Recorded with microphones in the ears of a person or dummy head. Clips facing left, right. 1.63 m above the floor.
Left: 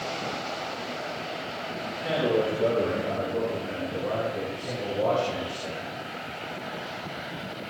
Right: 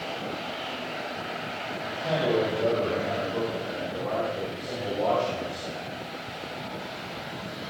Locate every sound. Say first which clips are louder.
1.9 s a man speaking: even; 45° left (ahead or behind), 6.5 m; by 5.9 s 50° left (ahead or behind), 12.5 m